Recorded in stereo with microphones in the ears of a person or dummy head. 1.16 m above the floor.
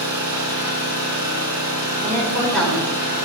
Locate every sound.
0.0 s an engine running: 20° right (ahead or behind), 6.5 m
2.0 s a woman speaking: centre (ahead or behind), 4 m